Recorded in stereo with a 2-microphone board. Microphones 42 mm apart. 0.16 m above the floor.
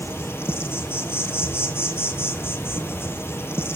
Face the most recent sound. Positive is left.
turn(degrees=80)